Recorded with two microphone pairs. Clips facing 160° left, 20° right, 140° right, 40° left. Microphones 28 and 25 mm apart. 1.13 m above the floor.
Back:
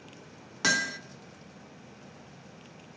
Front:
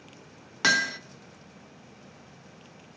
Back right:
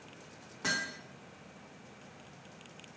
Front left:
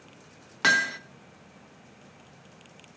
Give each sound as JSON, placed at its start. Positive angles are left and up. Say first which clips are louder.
{"t": 0.6, "sound": "hammering", "louder": "front 4 dB, front left 12 dB", "azimuth_deg": 40, "distance_m": 0.8}